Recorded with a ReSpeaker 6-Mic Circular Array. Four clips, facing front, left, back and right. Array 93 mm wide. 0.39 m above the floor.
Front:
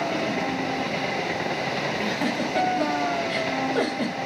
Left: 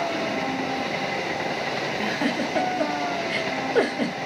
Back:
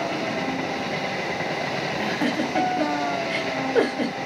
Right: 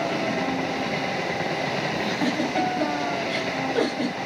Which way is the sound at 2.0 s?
135° left.